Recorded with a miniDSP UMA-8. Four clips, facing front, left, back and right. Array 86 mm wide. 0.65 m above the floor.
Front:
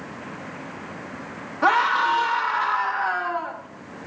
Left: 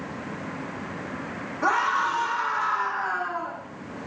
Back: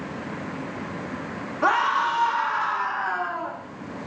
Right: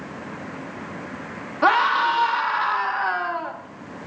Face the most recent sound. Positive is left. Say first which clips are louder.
# right 5 dB, front 2 dB
turn(degrees=-75)